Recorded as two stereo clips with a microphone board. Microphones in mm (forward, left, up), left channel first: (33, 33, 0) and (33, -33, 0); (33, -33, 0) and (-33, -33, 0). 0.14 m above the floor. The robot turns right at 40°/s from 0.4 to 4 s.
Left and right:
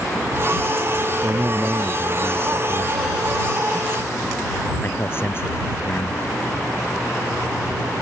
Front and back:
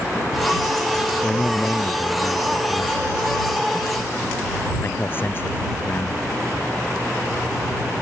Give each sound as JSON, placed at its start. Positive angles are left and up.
{"t": 1.2, "sound": "a man speaking", "azimuth_deg": -65}